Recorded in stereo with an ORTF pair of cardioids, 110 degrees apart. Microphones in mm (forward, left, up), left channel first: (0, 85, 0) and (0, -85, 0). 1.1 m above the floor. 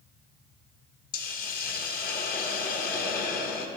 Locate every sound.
1.1 s a hiss: 65° left, 0.9 m